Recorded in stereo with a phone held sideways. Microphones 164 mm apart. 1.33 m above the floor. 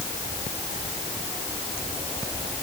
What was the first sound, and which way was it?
Only background noise.